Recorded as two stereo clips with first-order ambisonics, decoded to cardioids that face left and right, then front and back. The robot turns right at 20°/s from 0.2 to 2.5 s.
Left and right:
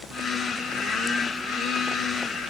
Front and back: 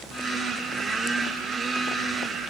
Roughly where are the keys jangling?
No keys jangling in this recording.